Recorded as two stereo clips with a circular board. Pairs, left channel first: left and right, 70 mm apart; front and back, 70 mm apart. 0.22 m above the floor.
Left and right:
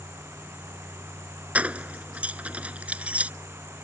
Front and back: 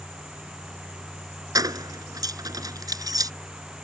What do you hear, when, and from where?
1.6 s keys jangling: 160° right